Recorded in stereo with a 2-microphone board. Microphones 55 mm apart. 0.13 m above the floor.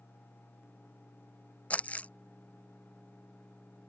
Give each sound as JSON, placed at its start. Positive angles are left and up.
{"t": 1.7, "sound": "crumpling", "side_deg": 25}